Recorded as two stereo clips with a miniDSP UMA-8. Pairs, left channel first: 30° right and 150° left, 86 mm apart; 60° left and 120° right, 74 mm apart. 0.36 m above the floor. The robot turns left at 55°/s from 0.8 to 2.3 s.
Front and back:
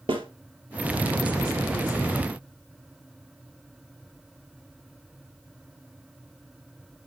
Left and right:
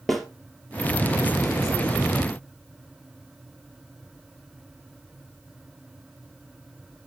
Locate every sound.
0.1 s a snare drum: 150° left, 2.5 m